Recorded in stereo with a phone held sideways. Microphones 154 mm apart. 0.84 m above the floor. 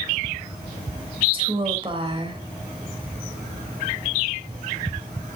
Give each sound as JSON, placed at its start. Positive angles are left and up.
{"t": 1.3, "sound": "a woman speaking", "side_deg": -35, "distance_m": 3.5}